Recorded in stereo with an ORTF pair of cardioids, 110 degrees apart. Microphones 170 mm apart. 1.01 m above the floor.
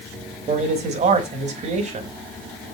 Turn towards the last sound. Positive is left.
turn(degrees=-45)